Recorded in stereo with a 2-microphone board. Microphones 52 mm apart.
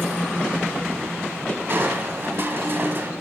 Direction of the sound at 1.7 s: 50° right (ahead or behind).